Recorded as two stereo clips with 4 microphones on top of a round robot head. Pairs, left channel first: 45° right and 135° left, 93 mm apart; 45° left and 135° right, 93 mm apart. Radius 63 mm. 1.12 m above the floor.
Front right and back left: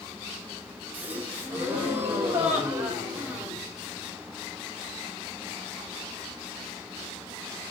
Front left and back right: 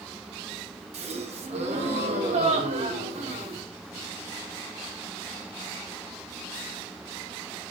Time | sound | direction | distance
0.9 | a gasp | 155° right | 1.9 m